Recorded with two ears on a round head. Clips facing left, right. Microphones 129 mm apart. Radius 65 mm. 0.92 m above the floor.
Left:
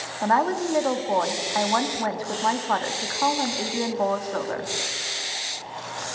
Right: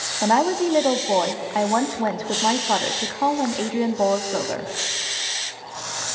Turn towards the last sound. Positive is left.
turn(degrees=-25)  # may be behind; listen again after turning